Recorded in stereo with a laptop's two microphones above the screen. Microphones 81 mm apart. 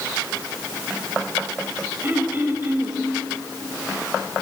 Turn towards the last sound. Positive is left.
turn(degrees=-30)  # may be behind; listen again after turning